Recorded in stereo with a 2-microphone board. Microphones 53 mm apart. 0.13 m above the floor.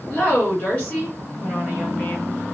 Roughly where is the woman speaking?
Left.